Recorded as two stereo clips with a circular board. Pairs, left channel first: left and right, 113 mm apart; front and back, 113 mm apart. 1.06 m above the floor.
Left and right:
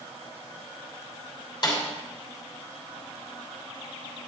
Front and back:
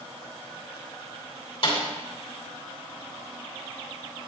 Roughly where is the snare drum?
Ahead left.